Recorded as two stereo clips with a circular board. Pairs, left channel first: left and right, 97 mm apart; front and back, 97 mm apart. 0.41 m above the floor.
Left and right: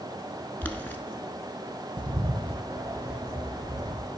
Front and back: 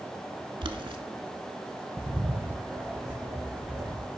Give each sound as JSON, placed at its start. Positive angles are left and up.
{"t": 0.6, "sound": "boiling", "azimuth_deg": 160, "distance_m": 0.9}
{"t": 2.0, "sound": "a bird", "azimuth_deg": -110, "distance_m": 1.5}